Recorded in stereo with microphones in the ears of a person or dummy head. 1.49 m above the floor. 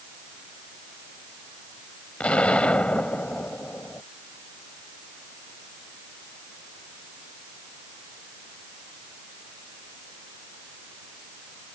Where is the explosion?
5° left (ahead or behind).